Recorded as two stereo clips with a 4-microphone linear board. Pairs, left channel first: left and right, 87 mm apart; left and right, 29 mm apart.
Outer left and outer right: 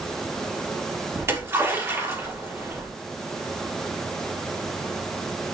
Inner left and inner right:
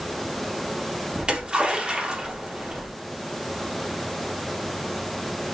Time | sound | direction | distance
1.2 | a splash | 30° right (ahead or behind) | 4 m